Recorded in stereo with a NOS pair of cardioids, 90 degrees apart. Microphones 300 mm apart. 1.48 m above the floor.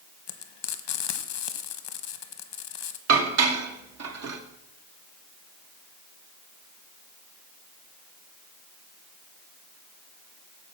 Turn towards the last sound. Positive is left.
turn(degrees=-60)